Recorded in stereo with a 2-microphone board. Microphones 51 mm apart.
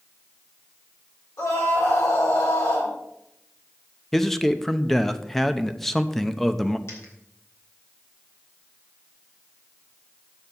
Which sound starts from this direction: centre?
A man speaking, at 4.1 s.